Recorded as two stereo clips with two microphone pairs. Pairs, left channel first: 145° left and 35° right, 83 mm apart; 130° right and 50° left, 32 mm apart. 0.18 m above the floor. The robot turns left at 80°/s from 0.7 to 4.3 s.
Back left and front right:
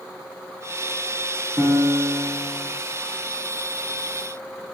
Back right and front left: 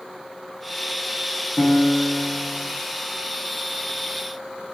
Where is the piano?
65° right, 1.6 m; by 2.6 s 150° right, 1.6 m.